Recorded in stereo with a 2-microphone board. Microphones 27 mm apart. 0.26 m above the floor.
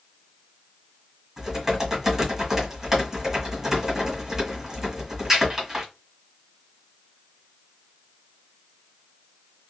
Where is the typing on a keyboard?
15° right (ahead or behind), 1.6 m.